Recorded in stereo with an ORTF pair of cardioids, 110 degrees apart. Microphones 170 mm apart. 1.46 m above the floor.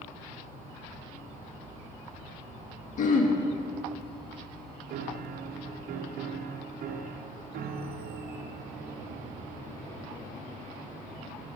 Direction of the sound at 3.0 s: 50° left.